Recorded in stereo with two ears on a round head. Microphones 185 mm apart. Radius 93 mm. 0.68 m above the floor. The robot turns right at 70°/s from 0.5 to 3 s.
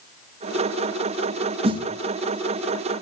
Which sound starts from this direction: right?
A snare drum, at 1.6 s.